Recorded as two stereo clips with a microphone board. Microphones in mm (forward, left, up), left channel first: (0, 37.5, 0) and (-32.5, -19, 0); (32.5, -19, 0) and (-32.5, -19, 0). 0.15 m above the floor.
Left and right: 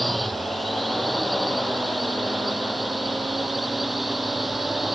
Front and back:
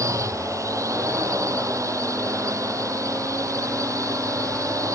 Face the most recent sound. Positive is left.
turn(degrees=150)